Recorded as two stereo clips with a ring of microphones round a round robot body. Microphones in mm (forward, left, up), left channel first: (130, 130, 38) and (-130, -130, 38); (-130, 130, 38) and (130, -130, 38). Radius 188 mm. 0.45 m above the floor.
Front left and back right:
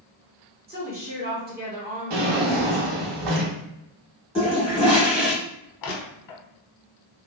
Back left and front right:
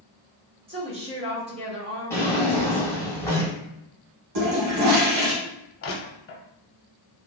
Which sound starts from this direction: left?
Crushing, at 5.8 s.